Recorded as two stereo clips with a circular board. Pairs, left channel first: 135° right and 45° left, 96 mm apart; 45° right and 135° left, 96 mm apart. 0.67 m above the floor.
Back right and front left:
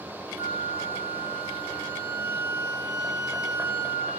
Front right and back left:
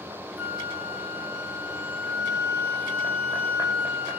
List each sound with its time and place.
0.4 s a flute: 60° left, 1.1 m